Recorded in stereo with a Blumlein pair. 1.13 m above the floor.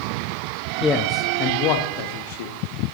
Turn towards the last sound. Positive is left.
turn(degrees=55)